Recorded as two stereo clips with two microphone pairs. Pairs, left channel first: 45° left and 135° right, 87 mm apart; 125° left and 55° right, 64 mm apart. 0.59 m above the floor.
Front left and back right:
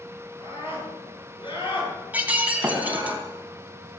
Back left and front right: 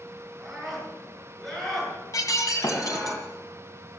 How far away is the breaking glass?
About 2.5 m.